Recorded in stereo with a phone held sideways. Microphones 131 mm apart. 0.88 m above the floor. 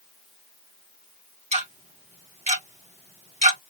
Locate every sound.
1.5 s ticking: 65° right (ahead or behind), 1.9 m